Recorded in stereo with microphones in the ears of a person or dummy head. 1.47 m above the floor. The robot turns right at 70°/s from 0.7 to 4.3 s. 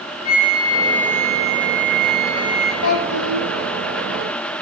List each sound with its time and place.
0.2 s a flute: 60° left, 6 m; by 2.7 s 160° right, 6 m
2.8 s a child speaking: 100° left, 7 m; by 3.5 s 145° left, 7 m